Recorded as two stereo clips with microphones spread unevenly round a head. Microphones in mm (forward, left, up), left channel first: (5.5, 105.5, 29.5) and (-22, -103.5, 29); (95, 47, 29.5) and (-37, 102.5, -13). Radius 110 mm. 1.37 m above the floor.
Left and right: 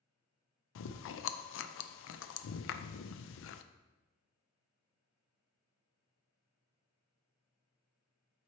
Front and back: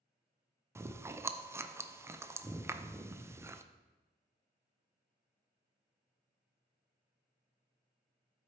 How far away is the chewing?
About 0.5 m.